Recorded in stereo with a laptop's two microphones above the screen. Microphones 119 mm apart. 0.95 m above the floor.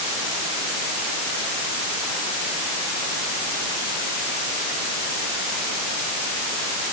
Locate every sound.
Only background noise.